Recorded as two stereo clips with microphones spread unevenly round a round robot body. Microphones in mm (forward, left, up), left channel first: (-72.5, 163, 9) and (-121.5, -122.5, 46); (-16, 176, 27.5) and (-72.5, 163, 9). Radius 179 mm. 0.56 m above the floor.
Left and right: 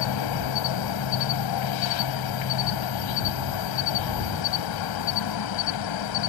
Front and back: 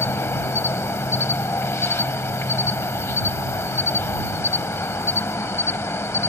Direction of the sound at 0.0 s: 50° left.